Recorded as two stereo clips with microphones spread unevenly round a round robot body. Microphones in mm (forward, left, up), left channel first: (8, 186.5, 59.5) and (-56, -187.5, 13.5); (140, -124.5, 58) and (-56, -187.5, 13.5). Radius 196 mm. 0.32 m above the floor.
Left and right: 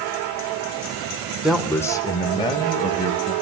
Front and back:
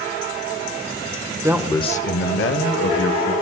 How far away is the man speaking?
About 1.0 m.